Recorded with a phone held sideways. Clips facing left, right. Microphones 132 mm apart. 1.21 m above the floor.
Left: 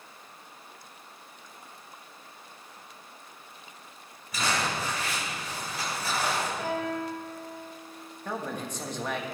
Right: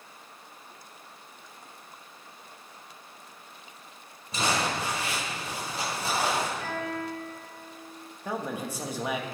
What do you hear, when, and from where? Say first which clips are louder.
4.3 s crumpling: right 2 dB; 35° right (ahead or behind), 5.5 m
6.6 s a guitar: left 2 dB; 75° left (ahead or behind), 5 m
8.2 s a man speaking: right 2 dB; 10° right (ahead or behind), 1.5 m